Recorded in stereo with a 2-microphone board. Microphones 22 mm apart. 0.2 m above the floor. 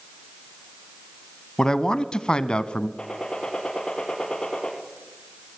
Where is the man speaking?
30° left (ahead or behind), 1.1 m; by 2.9 s 45° left (ahead or behind), 1.5 m.